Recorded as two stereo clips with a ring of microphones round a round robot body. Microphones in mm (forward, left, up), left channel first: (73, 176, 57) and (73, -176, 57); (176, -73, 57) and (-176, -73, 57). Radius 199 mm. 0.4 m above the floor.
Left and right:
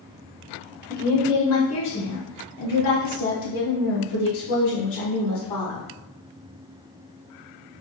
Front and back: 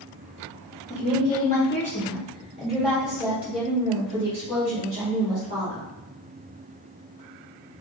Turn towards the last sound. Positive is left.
turn(degrees=100)